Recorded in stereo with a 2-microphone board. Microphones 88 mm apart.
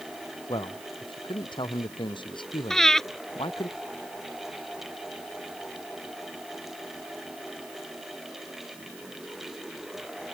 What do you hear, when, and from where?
0.5 s a man speaking: 60° left (ahead or behind); by 3.7 s 65° left (ahead or behind)
2.7 s breathing: 5° left (ahead or behind)